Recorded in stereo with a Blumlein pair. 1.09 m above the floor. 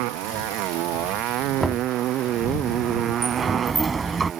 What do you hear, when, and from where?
0.0 s a motorcycle: 40° right; by 4.4 s 25° right
1.6 s knocking: 5° right
3.2 s a sliding door: 15° right